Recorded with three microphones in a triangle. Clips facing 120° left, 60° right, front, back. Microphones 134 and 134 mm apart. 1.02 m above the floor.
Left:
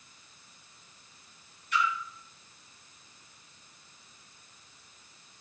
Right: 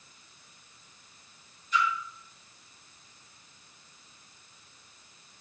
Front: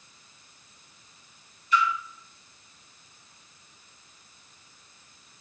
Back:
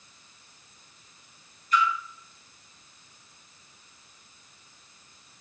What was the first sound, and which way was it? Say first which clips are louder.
A splash: right 1 dB, even; 135° left.